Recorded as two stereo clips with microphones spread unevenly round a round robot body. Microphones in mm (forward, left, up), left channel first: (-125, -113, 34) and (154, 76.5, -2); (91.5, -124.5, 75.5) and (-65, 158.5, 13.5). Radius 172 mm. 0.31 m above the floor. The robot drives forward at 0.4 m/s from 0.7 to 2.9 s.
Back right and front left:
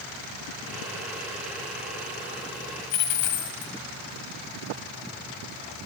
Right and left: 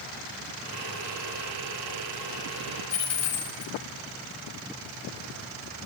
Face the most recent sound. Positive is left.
turn(degrees=-115)